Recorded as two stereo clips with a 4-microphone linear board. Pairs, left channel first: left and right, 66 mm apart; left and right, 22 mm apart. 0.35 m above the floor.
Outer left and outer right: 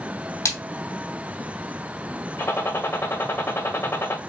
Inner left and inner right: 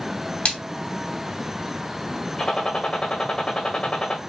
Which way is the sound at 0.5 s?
55° left (ahead or behind).